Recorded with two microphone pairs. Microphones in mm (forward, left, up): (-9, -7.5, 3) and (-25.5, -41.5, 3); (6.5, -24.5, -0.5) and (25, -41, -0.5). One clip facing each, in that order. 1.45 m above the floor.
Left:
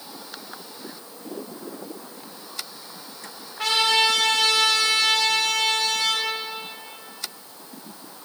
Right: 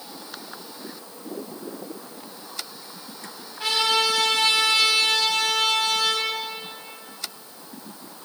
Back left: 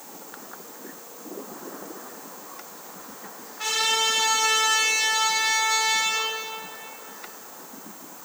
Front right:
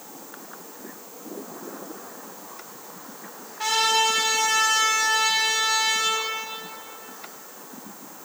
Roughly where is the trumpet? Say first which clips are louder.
Left 2 dB, front right 2 dB; ahead left.